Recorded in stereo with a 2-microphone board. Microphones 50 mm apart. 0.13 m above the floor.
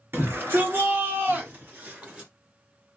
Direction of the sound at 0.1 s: 45° right (ahead or behind).